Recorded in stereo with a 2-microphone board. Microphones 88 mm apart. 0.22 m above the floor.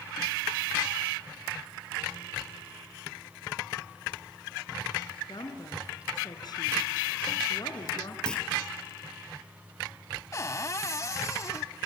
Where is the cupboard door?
35° left (ahead or behind), 0.7 m.